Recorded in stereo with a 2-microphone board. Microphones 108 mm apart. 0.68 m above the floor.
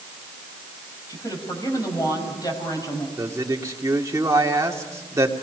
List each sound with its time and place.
1.1 s a woman speaking: 35° left (ahead or behind), 5 m
3.2 s a man speaking: 30° right (ahead or behind), 2.0 m